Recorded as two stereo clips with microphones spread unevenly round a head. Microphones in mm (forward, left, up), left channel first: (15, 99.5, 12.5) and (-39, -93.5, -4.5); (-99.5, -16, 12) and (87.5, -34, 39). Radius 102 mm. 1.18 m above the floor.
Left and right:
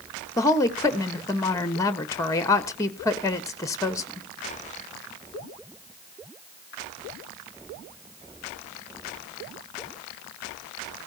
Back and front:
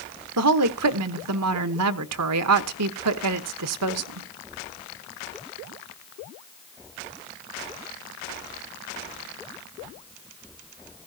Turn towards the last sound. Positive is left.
turn(degrees=-5)